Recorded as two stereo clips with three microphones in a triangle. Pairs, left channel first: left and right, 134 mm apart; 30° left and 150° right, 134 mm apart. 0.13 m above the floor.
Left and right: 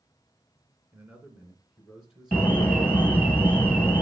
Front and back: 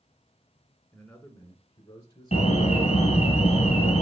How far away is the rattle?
No rattle in this recording.